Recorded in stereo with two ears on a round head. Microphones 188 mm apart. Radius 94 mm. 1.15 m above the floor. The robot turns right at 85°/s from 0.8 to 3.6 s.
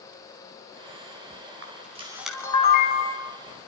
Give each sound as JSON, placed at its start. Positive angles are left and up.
{"t": 1.6, "sound": "a camera shutter", "side_deg": -55, "distance_m": 4.5}